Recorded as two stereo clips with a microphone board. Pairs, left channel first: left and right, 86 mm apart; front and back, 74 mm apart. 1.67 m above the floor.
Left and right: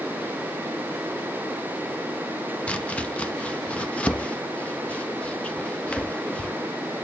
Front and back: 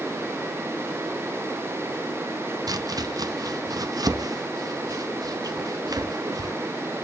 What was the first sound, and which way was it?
Chopping, 165° left.